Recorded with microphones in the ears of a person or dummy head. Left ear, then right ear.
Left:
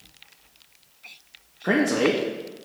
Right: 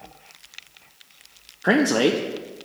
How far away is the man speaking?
About 0.6 m.